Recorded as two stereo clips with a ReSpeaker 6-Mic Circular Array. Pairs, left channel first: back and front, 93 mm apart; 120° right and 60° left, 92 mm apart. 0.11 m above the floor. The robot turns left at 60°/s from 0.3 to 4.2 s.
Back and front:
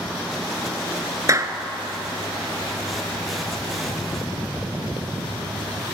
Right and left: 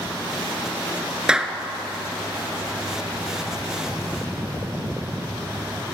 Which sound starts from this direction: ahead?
A clap, at 1.3 s.